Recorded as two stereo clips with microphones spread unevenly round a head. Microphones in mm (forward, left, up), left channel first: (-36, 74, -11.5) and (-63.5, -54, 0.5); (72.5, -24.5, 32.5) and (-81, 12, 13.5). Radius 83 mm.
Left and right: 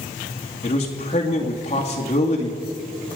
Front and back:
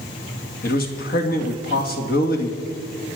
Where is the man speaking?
20° left, 2.0 m.